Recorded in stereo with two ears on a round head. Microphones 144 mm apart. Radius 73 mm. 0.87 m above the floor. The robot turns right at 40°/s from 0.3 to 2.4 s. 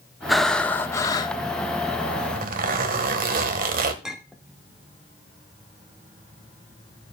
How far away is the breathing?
About 0.7 m.